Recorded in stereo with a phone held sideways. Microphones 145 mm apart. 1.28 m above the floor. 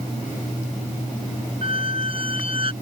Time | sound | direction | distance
1.6 | a squeak | 40° right (ahead or behind) | ?